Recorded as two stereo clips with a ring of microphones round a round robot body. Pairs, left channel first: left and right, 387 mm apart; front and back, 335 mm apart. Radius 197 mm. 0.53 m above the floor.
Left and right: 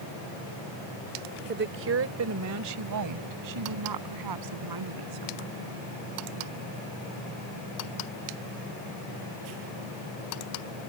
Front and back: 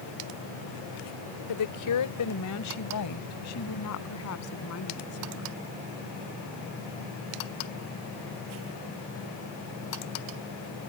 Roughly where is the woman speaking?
Ahead right.